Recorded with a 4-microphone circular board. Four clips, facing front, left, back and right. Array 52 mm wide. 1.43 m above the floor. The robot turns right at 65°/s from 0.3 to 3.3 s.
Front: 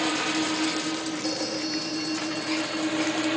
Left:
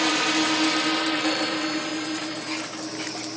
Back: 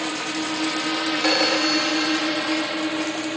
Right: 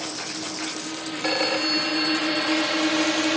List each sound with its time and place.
0.0 s a drone: 90° left; by 3.4 s 80° right
1.2 s a phone ringing: 165° right; by 2.8 s 60° right